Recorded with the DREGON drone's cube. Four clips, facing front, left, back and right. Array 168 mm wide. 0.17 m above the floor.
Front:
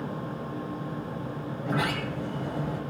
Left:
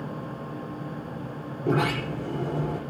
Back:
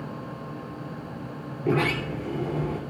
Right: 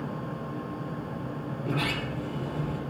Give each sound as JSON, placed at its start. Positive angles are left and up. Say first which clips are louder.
{"t": 1.6, "sound": "a sliding door", "louder": "left 7 dB, back 5 dB", "azimuth_deg": 150, "distance_m": 2.0}